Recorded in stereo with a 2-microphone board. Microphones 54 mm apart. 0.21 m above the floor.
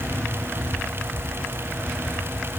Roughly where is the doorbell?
No doorbell in this recording.